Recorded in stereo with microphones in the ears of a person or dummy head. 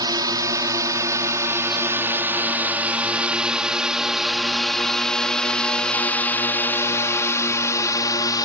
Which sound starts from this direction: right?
A drone, at 0.0 s.